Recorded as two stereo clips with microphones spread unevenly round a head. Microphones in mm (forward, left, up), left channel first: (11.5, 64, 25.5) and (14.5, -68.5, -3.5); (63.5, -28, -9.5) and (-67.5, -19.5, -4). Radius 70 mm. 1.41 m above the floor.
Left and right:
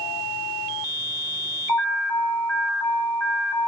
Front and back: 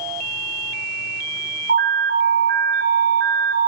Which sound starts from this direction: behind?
An alarm, at 1.7 s.